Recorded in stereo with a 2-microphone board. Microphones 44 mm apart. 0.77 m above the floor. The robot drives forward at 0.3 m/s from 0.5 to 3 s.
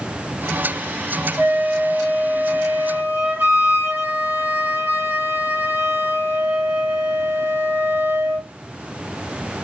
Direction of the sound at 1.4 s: 65° right (ahead or behind).